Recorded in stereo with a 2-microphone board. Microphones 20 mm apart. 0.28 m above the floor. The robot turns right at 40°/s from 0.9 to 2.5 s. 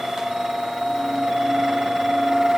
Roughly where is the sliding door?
No sliding door in this recording.